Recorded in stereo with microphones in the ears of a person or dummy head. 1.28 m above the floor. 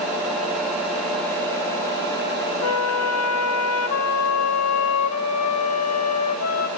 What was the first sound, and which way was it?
A flute, 80° left.